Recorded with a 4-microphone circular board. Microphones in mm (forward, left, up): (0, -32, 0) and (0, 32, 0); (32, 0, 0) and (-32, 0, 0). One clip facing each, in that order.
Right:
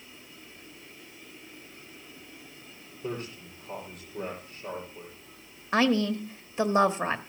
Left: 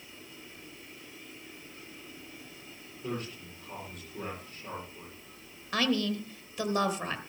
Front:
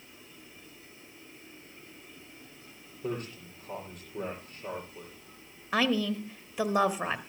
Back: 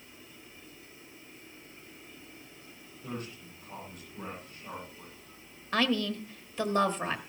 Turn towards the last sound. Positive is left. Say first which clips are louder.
# right 5 dB, front 1 dB
turn(degrees=-70)